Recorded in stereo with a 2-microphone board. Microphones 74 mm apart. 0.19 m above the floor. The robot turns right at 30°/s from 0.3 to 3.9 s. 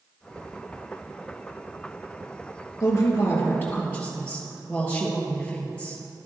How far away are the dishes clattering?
I don't hear dishes clattering.